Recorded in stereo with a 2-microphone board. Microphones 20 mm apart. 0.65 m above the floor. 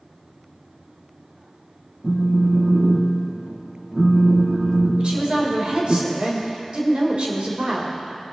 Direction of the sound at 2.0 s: 40° right (ahead or behind).